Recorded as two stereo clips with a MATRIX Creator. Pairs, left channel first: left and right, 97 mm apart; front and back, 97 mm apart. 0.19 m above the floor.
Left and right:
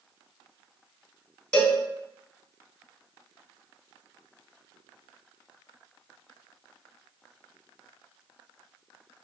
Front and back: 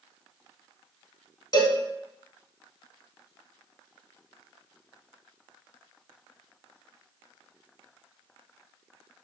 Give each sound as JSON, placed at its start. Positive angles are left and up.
{"t": 1.5, "sound": "a cowbell", "azimuth_deg": 15, "distance_m": 0.6}